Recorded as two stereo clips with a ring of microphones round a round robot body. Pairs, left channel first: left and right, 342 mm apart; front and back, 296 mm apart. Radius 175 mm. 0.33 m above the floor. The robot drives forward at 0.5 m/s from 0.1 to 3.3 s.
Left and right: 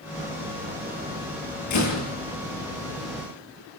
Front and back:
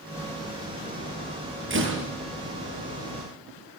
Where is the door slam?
130° left, 7.5 m.